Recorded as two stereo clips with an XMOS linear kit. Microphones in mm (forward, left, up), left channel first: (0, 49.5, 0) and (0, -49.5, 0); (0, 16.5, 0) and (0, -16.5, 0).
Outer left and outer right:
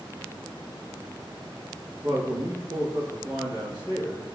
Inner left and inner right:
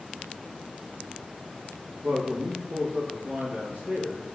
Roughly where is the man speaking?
Right.